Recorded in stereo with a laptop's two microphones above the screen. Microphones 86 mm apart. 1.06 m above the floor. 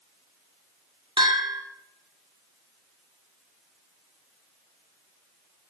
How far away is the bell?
About 2.5 m.